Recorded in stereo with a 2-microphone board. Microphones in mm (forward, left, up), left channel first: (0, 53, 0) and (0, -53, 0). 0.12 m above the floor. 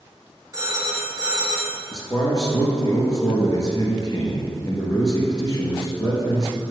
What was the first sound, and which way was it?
A phone ringing, 35° right (ahead or behind).